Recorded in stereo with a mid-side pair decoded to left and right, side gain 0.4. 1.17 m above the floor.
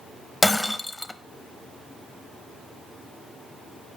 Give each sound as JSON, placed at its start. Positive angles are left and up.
{"t": 0.4, "sound": "breaking glass", "azimuth_deg": 15, "distance_m": 0.6}